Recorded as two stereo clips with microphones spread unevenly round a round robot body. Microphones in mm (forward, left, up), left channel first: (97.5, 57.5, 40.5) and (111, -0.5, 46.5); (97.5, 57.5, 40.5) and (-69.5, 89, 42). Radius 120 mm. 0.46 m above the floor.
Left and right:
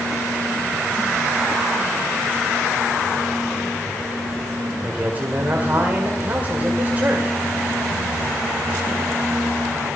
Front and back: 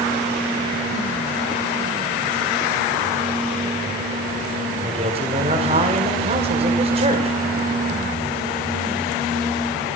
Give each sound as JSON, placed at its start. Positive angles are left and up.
{"t": 4.8, "sound": "a man speaking", "azimuth_deg": -140, "distance_m": 2.0}